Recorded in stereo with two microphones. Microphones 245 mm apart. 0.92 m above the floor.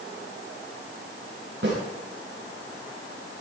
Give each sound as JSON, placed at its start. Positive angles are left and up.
{"t": 1.6, "sound": "a snare drum", "side_deg": -50, "distance_m": 9.5}